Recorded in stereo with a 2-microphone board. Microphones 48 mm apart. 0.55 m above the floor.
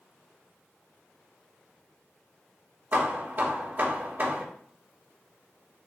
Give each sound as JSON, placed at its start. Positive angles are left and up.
{"t": 2.9, "sound": "hammering", "side_deg": -40, "distance_m": 1.4}